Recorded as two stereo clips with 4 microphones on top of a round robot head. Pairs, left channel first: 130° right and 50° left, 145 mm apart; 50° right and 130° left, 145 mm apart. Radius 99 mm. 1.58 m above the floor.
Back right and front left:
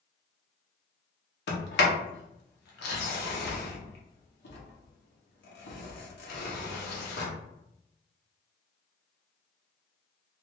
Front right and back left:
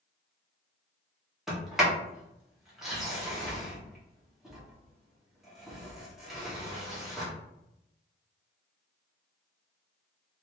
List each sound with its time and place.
1.5 s a sliding door: 140° right, 0.7 m